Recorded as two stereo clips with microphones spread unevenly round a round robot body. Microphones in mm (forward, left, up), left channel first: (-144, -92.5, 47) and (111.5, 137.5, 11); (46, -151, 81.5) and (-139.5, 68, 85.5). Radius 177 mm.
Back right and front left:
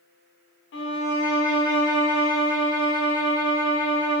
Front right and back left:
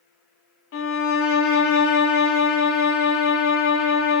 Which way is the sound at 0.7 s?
85° right.